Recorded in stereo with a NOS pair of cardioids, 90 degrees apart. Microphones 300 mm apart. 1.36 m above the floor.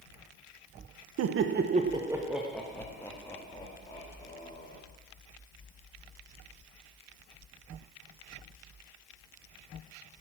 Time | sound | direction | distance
1.2 | laughter | 60° right | 0.8 m